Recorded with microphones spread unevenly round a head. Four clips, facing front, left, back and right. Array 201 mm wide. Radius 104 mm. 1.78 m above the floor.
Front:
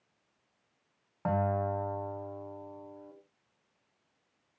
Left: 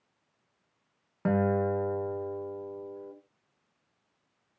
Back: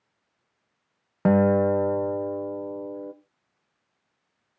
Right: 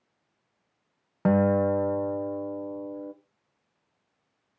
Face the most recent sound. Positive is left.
turn(degrees=-150)